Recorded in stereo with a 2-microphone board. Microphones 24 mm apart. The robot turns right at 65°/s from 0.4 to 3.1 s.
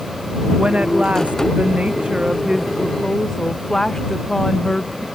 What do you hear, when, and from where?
0.6 s a woman speaking: 145° right; by 5.1 s 20° left